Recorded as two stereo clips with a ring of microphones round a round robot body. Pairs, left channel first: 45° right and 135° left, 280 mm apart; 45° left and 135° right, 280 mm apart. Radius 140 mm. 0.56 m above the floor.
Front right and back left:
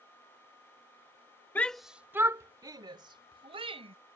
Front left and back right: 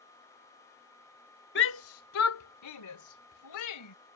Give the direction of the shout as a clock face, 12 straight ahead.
11 o'clock.